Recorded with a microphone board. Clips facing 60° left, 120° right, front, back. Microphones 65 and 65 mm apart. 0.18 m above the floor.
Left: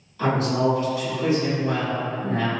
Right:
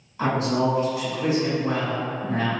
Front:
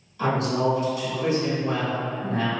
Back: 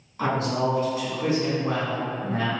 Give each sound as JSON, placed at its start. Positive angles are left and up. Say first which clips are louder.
{"t": 0.2, "sound": "a woman speaking", "louder": "left 1 dB, front 1 dB", "azimuth_deg": -165, "distance_m": 1.7}